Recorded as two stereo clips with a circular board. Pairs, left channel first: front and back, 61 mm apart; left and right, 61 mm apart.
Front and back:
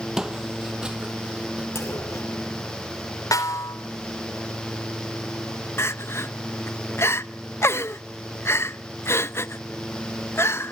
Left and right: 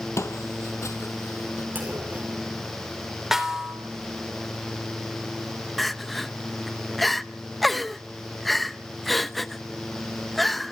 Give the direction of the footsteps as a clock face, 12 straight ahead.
9 o'clock.